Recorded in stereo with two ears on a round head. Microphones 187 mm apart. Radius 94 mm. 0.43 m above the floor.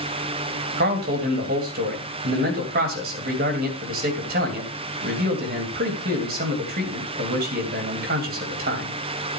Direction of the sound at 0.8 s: 45° right (ahead or behind).